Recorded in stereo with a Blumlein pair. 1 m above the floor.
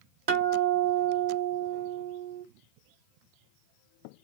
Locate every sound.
0.3 s a guitar: 55° right, 0.9 m